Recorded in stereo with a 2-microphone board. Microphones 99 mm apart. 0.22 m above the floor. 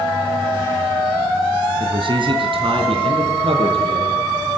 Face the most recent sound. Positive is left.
turn(degrees=-70)  # may be behind; listen again after turning